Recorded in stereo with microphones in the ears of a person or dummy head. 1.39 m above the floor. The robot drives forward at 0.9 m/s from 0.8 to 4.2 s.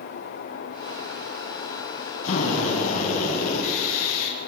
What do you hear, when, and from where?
2.2 s a drill: 50° left (ahead or behind), 9.5 m; by 4.4 s 60° left (ahead or behind), 8 m